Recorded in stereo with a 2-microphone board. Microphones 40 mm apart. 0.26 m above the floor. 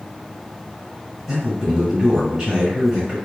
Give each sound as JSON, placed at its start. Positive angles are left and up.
{"t": 1.3, "sound": "a man speaking", "side_deg": -15, "distance_m": 1.3}